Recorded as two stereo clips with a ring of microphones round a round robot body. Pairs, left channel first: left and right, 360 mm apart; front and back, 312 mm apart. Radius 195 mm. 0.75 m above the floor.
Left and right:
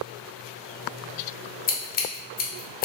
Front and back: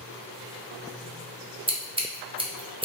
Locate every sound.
1.7 s scissors: 125° left, 1.0 m